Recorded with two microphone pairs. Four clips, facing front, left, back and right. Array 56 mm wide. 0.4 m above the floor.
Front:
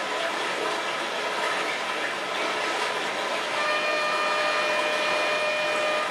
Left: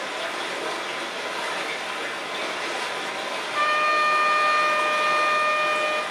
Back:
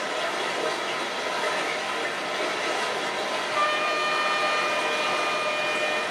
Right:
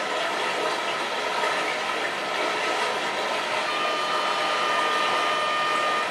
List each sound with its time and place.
0.0 s running water: 90° right, 1.6 m
3.5 s a trumpet: 110° left, 0.6 m